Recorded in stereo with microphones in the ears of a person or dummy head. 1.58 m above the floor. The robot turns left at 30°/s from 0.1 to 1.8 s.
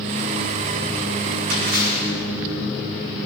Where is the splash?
65° right (ahead or behind), 7 m; by 2.1 s 55° right (ahead or behind), 7 m.